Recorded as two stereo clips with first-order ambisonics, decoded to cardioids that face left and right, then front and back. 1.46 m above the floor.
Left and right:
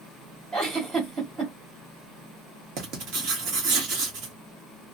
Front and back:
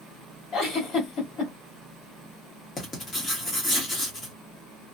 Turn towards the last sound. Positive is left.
turn(degrees=-70)